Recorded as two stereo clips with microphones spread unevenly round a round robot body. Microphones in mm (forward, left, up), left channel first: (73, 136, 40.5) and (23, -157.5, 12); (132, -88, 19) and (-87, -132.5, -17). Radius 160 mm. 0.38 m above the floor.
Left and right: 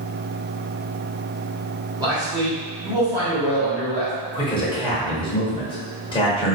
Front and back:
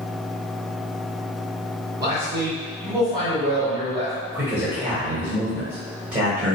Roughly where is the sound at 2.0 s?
Behind right.